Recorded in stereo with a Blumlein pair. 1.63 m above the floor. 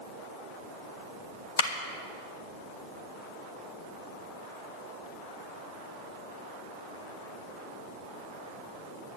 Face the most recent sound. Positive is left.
turn(degrees=65)